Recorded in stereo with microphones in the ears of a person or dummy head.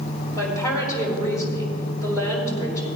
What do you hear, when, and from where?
0.3 s a woman speaking: 20° left (ahead or behind), 5 m